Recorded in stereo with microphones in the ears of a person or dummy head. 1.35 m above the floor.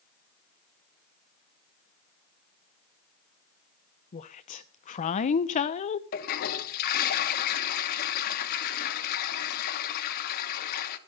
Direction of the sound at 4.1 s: 40° left (ahead or behind).